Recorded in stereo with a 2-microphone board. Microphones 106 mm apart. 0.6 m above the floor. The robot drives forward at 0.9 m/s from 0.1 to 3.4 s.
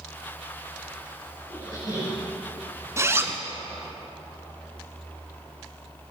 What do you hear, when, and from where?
1.5 s a squeak: 35° right (ahead or behind), 4 m; by 2.2 s 40° right (ahead or behind), 3.5 m
3.0 s a zipper: 25° right (ahead or behind), 1.0 m; by 3.4 s 20° right (ahead or behind), 1.4 m